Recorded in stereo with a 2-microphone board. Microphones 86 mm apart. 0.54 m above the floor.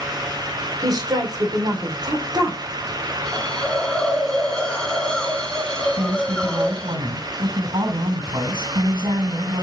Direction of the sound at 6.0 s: 70° right (ahead or behind).